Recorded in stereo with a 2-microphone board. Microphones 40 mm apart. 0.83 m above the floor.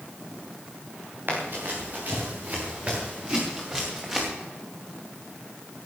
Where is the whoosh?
75° right (ahead or behind), 3 m.